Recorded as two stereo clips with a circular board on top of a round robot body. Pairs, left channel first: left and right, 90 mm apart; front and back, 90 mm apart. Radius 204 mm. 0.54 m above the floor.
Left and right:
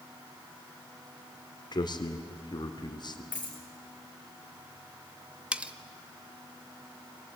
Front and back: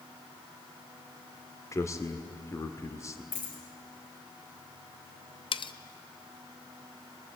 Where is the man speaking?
55° left, 2 m.